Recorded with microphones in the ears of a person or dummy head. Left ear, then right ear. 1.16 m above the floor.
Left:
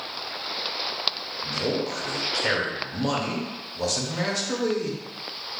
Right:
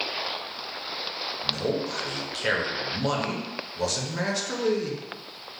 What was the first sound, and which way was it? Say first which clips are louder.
A man speaking: left 1 dB; 10° right (ahead or behind).